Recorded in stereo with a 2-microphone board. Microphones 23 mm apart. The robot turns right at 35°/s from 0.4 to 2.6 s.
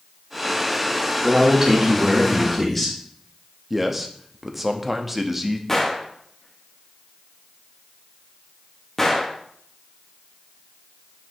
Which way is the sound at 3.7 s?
10° right (ahead or behind).